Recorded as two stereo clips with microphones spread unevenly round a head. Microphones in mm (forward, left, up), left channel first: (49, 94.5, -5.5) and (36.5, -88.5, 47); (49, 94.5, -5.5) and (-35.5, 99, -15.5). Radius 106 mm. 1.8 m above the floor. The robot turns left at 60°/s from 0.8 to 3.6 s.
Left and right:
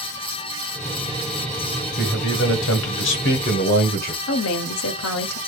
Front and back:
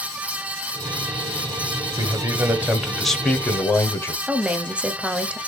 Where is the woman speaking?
95° left, 0.7 m.